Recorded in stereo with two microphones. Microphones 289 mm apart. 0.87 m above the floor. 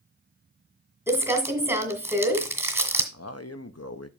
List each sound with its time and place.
1.1 s crumpling: 10° right (ahead or behind), 1.7 m
3.1 s a man speaking: 55° left (ahead or behind), 0.8 m